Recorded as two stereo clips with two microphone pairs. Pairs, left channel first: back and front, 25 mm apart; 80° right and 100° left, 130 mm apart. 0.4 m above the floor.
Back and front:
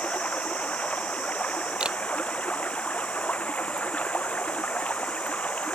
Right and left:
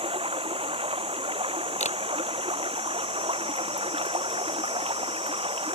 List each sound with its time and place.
0.0 s running water: 145° left
1.8 s a camera shutter: 50° right